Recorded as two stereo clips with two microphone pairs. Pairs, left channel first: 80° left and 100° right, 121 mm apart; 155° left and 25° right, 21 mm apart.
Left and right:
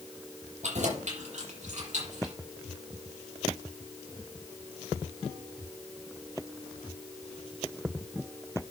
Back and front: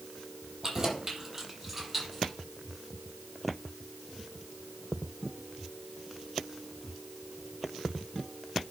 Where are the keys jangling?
90° right, 6 m; by 2.3 s 110° right, 5 m.